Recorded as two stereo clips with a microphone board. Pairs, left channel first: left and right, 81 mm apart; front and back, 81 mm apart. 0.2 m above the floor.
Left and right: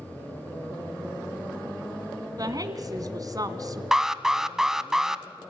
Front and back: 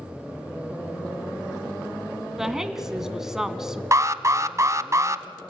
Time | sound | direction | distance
2.4 | a woman speaking | 95° right | 1.9 m
3.9 | an alarm | 170° right | 0.8 m